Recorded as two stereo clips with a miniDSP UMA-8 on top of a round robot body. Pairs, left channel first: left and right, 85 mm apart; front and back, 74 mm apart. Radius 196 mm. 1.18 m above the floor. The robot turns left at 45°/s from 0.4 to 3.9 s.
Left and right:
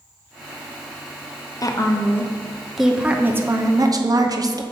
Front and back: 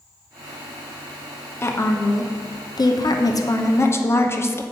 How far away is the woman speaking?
About 0.9 m.